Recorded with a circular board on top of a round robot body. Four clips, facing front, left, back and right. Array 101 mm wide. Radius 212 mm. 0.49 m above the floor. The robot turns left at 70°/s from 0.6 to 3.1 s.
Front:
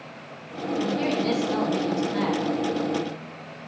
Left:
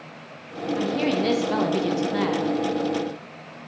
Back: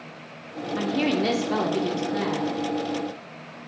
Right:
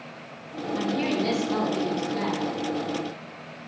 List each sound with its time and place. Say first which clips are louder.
0.8 s a woman speaking: left 2 dB, back 2 dB; straight behind, 0.9 m; by 2.5 s 55° left, 0.9 m